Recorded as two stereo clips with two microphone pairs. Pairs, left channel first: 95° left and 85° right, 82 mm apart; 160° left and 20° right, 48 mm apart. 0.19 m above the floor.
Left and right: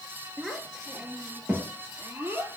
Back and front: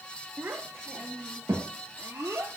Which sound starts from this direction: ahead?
A child speaking, at 0.4 s.